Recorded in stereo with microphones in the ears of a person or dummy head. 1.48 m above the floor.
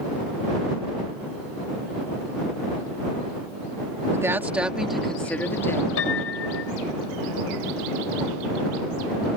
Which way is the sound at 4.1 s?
15° right (ahead or behind).